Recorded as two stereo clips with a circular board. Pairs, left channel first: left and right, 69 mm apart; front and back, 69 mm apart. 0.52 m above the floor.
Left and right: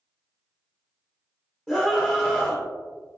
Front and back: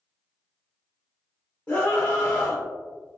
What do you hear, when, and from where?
1.7 s a scream: 25° left, 0.7 m